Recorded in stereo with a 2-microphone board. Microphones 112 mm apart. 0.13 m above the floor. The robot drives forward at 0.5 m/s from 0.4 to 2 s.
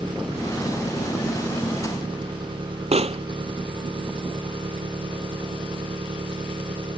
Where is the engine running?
45° right (ahead or behind); by 7.0 s 50° right (ahead or behind).